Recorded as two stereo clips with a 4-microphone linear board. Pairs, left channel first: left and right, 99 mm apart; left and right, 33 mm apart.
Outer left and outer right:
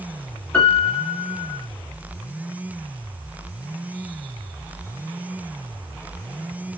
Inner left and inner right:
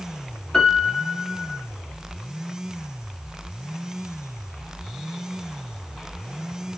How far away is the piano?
About 0.8 m.